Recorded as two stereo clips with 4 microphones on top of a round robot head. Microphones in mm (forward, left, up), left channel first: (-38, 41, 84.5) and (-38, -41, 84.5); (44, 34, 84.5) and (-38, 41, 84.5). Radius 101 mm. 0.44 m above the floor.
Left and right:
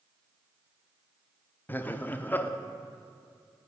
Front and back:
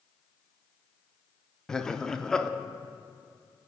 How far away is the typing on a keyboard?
No typing on a keyboard in this recording.